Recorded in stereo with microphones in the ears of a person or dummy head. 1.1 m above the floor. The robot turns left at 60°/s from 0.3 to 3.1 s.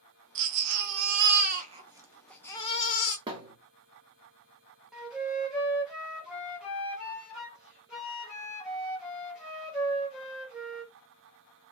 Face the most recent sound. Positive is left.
turn(degrees=-5)  # may be behind; listen again after turning